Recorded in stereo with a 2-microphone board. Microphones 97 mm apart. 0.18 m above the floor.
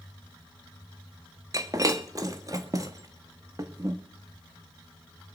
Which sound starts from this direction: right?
Breaking glass, at 1.5 s.